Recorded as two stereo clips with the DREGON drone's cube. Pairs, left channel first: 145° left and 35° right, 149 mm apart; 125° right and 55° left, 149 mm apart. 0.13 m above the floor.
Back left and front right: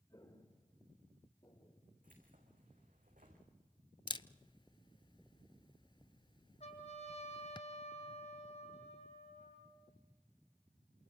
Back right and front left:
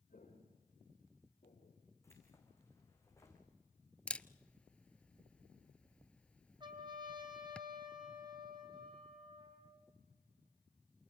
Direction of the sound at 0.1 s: 150° right.